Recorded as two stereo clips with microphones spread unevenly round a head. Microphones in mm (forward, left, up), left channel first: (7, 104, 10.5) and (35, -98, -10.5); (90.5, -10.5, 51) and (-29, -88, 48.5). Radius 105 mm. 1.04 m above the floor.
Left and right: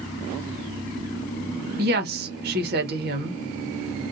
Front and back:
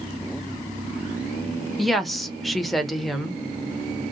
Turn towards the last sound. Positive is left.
turn(degrees=-55)